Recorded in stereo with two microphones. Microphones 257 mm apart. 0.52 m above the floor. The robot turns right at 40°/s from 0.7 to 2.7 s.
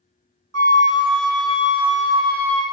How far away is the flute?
About 1.3 m.